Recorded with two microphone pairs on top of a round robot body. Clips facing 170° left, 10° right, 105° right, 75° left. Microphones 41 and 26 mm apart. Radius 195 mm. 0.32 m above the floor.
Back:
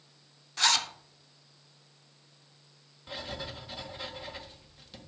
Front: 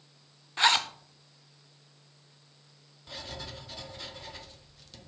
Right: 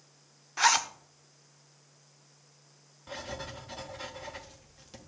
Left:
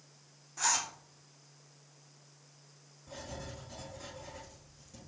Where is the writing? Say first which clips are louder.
Back 3 dB, right 5 dB; 110° right, 1.6 m.